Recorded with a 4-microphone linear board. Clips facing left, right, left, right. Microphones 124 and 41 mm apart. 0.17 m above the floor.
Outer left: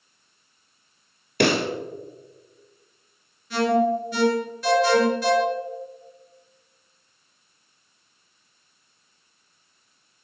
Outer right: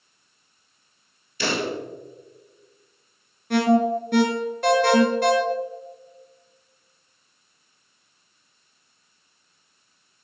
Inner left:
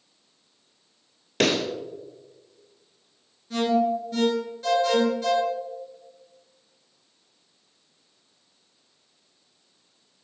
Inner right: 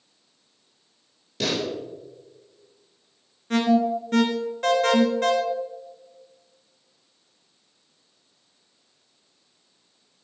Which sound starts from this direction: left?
A pop, at 1.4 s.